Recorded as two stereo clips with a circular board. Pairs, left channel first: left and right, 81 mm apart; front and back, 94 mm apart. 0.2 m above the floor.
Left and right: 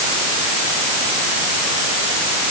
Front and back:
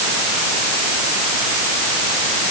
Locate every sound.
Only background noise.